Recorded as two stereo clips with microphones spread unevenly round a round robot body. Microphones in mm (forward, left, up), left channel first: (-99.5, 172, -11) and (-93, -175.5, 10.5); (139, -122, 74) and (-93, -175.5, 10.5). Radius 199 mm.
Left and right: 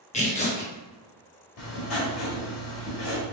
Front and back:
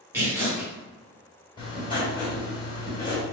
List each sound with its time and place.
0.1 s tearing paper: 145° left, 1.3 m
1.6 s writing: 95° left, 1.8 m